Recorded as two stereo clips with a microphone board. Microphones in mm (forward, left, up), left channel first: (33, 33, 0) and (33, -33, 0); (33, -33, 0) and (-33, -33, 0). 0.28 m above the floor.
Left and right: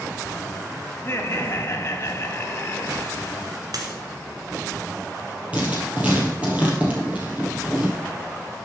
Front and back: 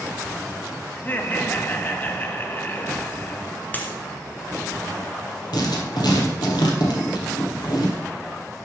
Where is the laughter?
50° left, 1.4 m.